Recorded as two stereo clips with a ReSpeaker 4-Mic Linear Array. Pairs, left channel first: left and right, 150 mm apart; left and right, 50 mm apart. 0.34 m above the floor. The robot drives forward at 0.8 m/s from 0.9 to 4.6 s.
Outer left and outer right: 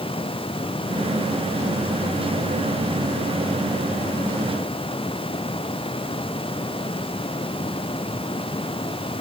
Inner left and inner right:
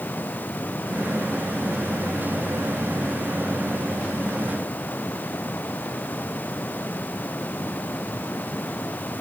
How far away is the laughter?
I don't hear laughter.